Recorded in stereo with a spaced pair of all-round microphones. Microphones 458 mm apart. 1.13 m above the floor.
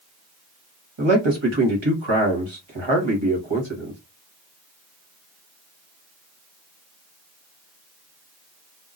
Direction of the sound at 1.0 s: 75° right (ahead or behind).